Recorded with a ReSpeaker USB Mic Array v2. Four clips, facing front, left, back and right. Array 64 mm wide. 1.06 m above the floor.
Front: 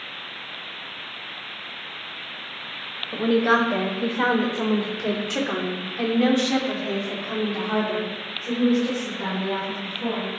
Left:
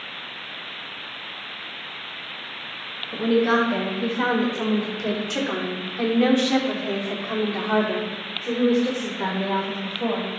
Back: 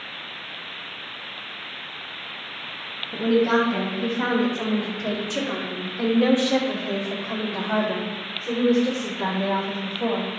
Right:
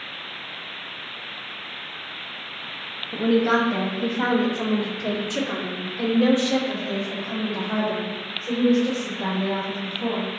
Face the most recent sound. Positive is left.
turn(degrees=120)